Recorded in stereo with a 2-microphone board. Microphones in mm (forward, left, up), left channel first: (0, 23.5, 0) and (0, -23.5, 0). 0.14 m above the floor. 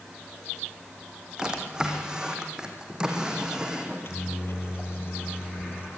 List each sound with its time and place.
1.4 s a drawer: 15° right (ahead or behind), 3.5 m
3.8 s a microwave: 55° left (ahead or behind), 3 m